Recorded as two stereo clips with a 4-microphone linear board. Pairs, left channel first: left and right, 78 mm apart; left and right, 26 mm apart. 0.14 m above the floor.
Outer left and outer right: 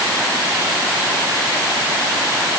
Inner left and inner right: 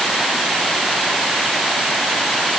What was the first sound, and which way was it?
Only background noise.